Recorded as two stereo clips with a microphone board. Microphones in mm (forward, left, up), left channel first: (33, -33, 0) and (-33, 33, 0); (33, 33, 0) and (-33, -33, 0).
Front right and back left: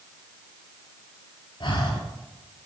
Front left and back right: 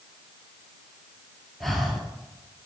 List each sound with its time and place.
1.6 s breathing: 45° right, 1.1 m